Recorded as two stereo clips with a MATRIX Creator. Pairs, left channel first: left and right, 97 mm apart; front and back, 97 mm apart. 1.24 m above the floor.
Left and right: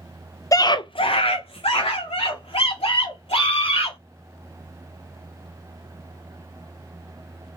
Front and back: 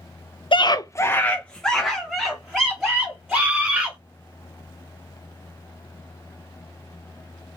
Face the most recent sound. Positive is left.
turn(degrees=100)